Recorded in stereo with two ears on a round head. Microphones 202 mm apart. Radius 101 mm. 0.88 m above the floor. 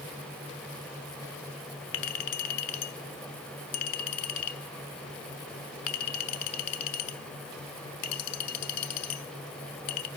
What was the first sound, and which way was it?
A clink, 75° left (ahead or behind).